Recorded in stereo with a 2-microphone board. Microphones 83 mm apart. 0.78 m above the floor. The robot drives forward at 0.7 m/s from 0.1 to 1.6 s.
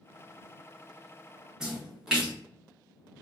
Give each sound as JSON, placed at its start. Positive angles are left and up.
{"t": 1.6, "sound": "a splash", "side_deg": -10, "distance_m": 1.2}